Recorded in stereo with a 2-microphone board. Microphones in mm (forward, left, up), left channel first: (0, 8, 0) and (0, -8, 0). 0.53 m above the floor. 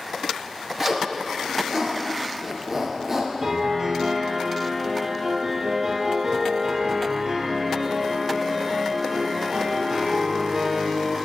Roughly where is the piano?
Right.